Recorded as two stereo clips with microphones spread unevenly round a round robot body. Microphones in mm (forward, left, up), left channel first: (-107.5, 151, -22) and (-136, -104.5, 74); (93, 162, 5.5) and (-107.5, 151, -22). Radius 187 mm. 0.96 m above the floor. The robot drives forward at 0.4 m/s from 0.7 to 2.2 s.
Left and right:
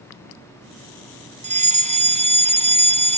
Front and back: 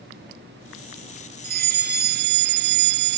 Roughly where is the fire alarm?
Behind.